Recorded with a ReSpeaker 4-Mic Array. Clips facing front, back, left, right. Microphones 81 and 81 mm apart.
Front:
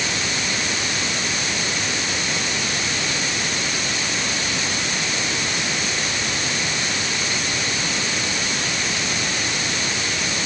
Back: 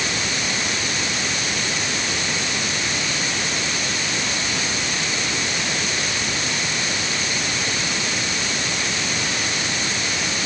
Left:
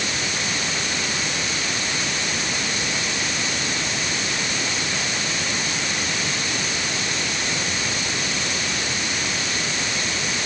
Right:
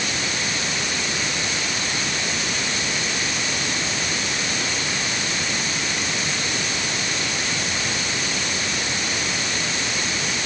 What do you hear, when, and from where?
Only background noise.